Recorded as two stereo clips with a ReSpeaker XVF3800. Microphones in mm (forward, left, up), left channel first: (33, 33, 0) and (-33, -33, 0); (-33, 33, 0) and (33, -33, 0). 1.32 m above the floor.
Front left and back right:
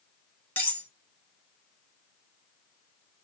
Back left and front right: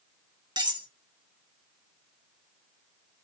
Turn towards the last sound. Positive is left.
turn(degrees=-20)